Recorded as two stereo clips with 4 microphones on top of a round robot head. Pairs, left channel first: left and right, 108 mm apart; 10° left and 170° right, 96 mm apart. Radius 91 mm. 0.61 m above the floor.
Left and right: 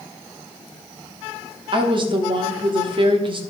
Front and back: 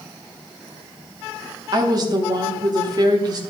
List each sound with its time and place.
1.7 s a woman speaking: 125° right, 1.2 m